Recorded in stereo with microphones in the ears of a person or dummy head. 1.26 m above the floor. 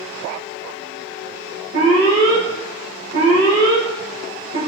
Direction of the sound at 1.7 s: 70° right (ahead or behind).